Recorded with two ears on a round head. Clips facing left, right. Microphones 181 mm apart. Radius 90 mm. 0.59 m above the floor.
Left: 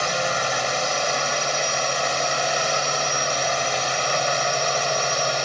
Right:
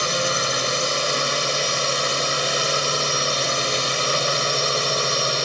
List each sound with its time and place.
0.0 s a drone: 50° right (ahead or behind)